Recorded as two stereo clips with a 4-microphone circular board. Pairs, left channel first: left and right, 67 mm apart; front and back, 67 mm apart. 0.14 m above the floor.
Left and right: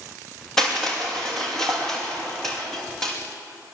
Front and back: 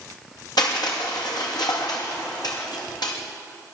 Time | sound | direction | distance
0.6 | crushing | 5° left | 6 m